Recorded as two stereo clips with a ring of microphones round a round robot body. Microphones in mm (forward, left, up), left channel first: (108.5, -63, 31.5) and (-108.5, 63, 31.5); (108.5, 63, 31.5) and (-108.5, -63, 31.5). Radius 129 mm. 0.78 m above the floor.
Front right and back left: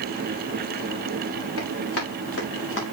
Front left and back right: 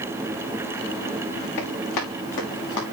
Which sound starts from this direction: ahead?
Running footsteps, at 1.6 s.